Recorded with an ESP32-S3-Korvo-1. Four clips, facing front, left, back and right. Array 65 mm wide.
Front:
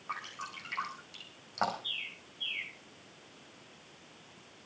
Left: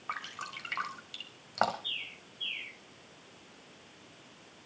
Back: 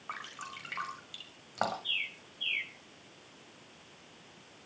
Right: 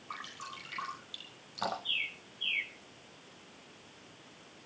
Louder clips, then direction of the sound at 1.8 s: Right 4 dB, back 4 dB; 160° right.